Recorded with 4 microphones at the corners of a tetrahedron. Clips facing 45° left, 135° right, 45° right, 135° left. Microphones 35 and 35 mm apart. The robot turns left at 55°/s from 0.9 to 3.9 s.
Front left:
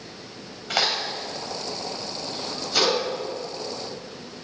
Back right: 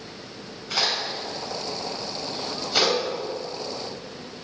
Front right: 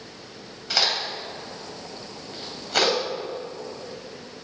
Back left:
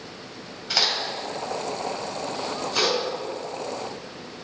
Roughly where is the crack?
Ahead left.